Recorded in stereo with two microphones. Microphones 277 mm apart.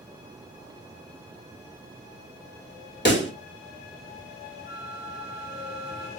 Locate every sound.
3.0 s a pop: 40° left (ahead or behind), 0.6 m
4.7 s a flute: 40° left (ahead or behind), 1.7 m